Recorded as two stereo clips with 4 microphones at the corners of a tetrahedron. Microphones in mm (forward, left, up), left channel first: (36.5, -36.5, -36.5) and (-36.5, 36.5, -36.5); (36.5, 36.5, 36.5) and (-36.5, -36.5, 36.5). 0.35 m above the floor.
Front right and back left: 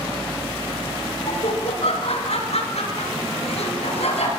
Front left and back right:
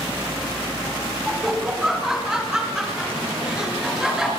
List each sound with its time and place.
1.3 s laughter: 50° right, 4 m